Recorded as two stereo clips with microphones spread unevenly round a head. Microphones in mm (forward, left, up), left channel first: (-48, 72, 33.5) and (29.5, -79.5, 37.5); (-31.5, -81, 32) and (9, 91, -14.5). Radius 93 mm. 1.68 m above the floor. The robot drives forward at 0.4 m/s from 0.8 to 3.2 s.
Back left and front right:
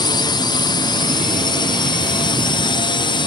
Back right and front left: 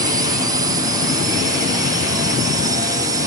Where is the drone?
75° left; by 3.3 s 85° left.